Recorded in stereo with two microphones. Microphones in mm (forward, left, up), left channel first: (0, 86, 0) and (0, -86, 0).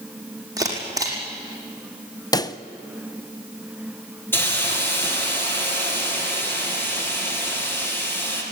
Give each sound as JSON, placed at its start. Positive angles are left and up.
{"t": 0.6, "sound": "a camera shutter", "side_deg": -20, "distance_m": 5.0}
{"t": 2.3, "sound": "a pop", "side_deg": 20, "distance_m": 0.7}
{"t": 4.3, "sound": "a hiss", "side_deg": 10, "distance_m": 4.5}